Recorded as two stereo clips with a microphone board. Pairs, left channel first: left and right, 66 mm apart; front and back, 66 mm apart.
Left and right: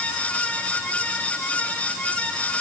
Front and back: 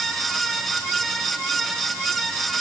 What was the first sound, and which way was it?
Only background noise.